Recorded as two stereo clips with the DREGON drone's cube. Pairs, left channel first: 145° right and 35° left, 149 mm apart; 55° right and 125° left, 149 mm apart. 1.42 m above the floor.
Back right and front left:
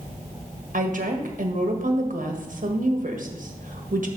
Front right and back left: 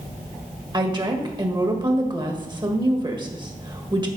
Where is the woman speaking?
65° left, 1.5 m.